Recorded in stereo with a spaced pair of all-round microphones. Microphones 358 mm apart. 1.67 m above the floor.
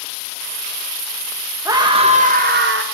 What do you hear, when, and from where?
1.6 s a scream: 10° right (ahead or behind), 1.8 m; by 2.8 s 35° right (ahead or behind), 1.6 m